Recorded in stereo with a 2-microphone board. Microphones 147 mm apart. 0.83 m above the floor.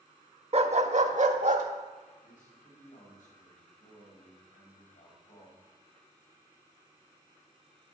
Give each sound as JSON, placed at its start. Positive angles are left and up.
{"t": 0.5, "sound": "a dog barking", "side_deg": -50, "distance_m": 0.6}
{"t": 2.2, "sound": "a man speaking", "side_deg": 75, "distance_m": 4.0}